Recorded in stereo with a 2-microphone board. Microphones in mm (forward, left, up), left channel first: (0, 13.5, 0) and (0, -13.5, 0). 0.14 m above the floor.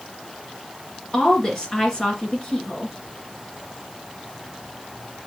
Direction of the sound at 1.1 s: 30° left (ahead or behind).